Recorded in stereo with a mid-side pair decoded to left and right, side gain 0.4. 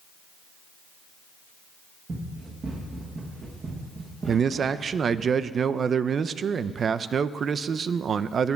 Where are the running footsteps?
45° right, 7.5 m.